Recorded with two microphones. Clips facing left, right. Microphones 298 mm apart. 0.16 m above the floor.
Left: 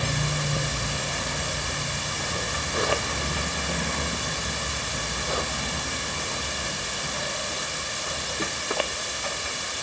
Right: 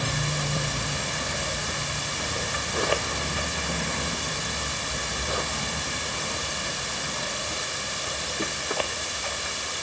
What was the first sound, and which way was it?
Only background noise.